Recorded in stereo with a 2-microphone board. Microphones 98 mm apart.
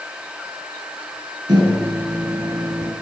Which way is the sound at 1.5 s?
45° right (ahead or behind).